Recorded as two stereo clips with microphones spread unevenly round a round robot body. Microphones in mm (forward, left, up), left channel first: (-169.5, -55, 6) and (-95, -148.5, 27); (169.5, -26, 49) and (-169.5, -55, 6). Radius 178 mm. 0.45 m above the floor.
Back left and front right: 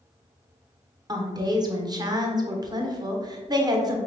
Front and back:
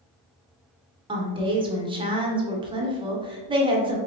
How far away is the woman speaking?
About 1.1 m.